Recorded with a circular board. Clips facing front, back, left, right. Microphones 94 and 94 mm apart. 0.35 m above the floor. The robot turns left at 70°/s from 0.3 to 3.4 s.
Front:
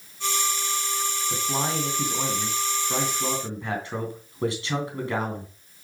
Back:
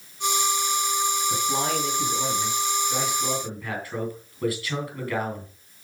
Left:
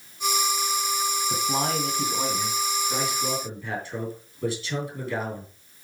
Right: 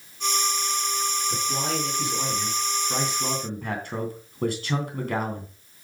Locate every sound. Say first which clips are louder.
1.3 s a man speaking: back 2 dB, left 2 dB; 85° left, 3 m; by 5.5 s 60° right, 3 m